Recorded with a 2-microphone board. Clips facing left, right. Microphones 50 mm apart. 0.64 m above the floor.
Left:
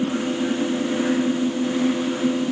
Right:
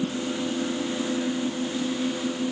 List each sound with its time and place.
Only background noise.